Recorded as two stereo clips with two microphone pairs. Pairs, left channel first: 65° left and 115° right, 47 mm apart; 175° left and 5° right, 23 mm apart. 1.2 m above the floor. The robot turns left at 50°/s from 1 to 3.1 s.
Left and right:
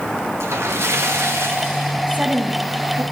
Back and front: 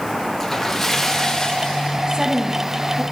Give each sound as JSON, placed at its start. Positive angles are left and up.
{"t": 0.4, "sound": "a splash", "azimuth_deg": -105, "distance_m": 2.0}
{"t": 2.1, "sound": "a woman speaking", "azimuth_deg": -50, "distance_m": 1.8}